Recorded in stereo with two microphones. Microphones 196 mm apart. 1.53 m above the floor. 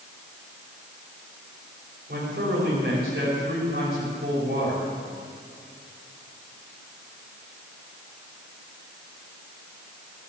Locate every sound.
2.1 s a man speaking: 55° right (ahead or behind), 5 m